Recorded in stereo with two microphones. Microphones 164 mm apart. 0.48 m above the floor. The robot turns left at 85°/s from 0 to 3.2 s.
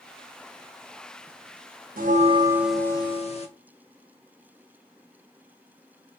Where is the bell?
115° right, 0.5 m; by 3.5 s 140° left, 0.5 m.